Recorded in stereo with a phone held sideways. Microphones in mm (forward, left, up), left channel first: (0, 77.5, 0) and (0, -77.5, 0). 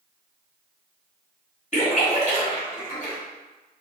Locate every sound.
1.7 s a splash: 45° left (ahead or behind), 1.3 m